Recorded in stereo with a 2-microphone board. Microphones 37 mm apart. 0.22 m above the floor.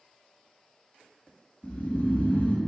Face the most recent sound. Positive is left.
turn(degrees=45)  # may be behind; listen again after turning